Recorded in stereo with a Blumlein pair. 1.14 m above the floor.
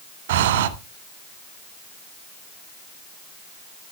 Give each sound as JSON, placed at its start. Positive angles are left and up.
{"t": 0.3, "sound": "breathing", "azimuth_deg": -55, "distance_m": 1.0}